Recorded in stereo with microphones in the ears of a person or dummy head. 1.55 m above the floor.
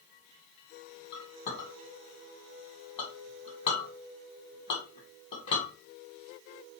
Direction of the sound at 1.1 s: 35° left (ahead or behind).